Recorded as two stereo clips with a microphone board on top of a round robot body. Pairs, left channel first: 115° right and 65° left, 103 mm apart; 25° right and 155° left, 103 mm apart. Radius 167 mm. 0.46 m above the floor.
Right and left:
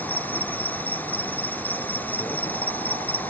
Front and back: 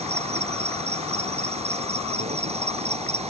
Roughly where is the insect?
Behind.